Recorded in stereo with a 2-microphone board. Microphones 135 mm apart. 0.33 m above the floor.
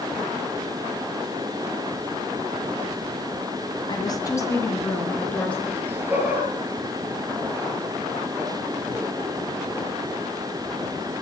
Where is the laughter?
15° right (ahead or behind), 5.5 m.